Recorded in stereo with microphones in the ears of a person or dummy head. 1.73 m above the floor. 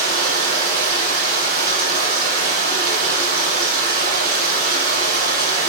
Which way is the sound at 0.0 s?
50° right (ahead or behind).